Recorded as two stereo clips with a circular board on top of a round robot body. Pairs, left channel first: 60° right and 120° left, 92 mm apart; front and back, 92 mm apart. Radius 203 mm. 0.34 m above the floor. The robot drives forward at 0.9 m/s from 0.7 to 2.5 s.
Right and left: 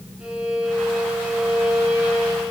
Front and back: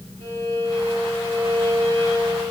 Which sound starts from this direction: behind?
A violin, at 0.2 s.